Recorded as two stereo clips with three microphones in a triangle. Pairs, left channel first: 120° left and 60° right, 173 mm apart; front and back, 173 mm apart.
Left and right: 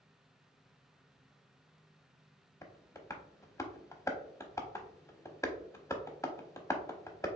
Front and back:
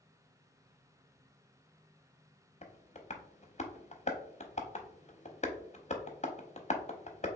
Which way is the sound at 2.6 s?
50° left.